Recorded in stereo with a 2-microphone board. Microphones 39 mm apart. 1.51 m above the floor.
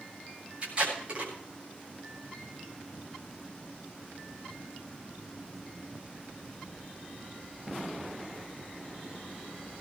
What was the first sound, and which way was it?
Tape being pulled, 30° right (ahead or behind).